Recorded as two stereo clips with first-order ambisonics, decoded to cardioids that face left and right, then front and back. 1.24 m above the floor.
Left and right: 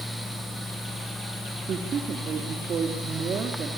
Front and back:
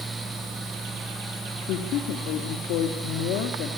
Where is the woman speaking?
30° right, 2 m.